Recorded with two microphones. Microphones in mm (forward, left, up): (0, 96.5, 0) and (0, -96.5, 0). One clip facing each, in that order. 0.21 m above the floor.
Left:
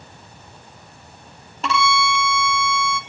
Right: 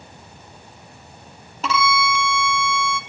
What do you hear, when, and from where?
1.6 s a violin: centre (ahead or behind), 0.6 m